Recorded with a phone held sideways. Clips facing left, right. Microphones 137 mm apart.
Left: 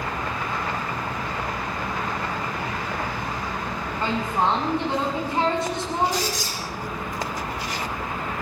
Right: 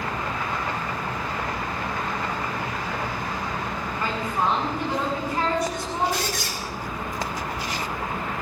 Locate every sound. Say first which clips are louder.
4.0 s a woman speaking: left 3 dB; 25° left (ahead or behind), 8 m
6.1 s a squeak: left 1 dB; 60° right (ahead or behind), 6 m